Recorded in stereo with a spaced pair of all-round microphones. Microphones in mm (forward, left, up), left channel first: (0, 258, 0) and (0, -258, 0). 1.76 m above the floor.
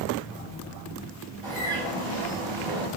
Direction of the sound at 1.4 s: 80° right.